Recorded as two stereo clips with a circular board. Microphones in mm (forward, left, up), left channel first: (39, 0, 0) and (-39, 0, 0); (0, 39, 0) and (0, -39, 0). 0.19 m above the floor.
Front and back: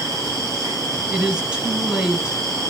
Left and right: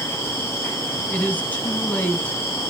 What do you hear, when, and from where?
0.0 s an insect: 145° left, 5.5 m
1.1 s a woman speaking: 120° left, 1.1 m